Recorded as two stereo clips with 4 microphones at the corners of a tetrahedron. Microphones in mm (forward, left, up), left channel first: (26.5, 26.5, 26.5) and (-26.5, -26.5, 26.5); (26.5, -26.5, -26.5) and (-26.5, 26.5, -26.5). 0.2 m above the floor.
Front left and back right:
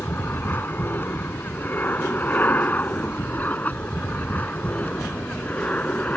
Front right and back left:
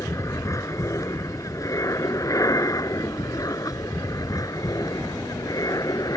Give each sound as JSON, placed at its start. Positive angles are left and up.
{"t": 0.0, "sound": "an aircraft", "azimuth_deg": -10}